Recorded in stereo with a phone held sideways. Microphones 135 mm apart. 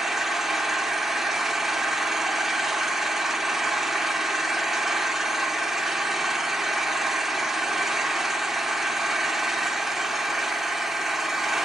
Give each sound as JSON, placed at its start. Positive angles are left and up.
{"t": 0.0, "sound": "an engine running", "side_deg": 0, "distance_m": 1.1}